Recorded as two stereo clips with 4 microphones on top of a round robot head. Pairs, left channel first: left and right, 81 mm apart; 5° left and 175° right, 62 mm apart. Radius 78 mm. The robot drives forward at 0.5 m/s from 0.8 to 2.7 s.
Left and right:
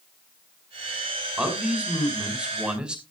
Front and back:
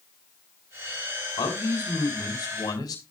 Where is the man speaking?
10° right, 6 m.